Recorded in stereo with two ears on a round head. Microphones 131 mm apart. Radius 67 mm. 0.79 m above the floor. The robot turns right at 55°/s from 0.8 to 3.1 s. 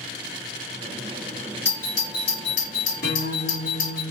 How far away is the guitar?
About 1.4 m.